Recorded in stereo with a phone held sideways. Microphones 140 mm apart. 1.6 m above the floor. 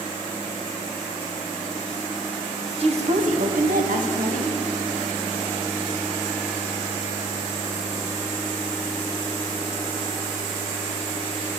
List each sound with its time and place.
2.8 s a woman speaking: 45° right (ahead or behind), 0.9 m; by 4.6 s 65° right (ahead or behind), 1.2 m